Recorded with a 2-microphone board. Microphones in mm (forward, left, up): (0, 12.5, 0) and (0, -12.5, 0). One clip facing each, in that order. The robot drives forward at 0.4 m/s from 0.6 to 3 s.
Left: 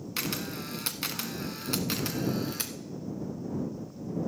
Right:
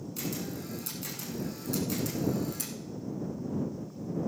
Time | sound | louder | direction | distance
0.2 | a camera shutter | left 4 dB | 65° left (ahead or behind) | 1.1 m